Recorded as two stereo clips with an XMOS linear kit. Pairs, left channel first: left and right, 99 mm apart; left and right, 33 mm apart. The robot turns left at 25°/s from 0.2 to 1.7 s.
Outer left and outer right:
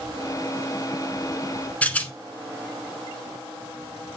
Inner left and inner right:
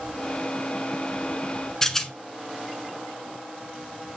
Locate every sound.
1.8 s a rattle: 15° left (ahead or behind), 0.7 m